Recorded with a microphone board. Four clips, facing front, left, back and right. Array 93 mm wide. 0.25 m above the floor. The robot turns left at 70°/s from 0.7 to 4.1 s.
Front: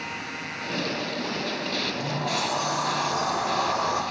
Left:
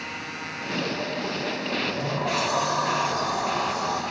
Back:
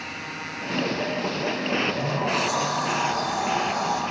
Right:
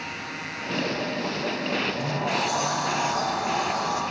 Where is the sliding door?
155° left, 4.5 m; by 4.0 s 5° right, 4.5 m.